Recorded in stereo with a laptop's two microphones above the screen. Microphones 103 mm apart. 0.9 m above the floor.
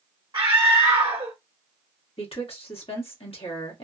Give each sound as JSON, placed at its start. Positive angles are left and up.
{"t": 0.3, "sound": "a scream", "side_deg": -50, "distance_m": 0.8}
{"t": 2.2, "sound": "a woman speaking", "side_deg": 70, "distance_m": 1.4}